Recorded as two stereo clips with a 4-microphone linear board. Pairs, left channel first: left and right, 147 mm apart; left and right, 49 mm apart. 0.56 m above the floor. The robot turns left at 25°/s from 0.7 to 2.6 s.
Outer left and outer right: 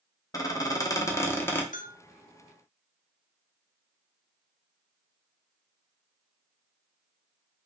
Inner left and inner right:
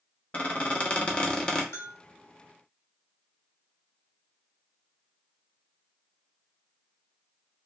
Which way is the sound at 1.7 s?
65° left (ahead or behind).